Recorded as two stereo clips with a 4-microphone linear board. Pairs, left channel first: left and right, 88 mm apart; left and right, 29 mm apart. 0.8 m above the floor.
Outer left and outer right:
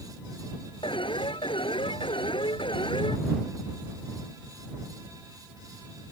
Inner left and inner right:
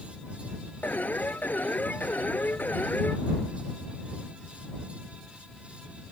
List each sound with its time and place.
0.8 s an alarm: 75° left (ahead or behind)